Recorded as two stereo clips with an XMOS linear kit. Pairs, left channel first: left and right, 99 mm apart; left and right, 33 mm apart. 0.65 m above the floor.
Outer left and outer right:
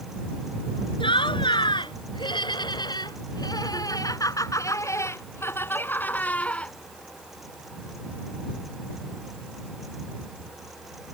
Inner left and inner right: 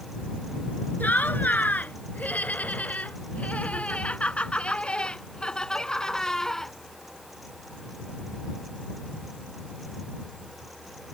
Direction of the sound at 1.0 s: 65° left (ahead or behind).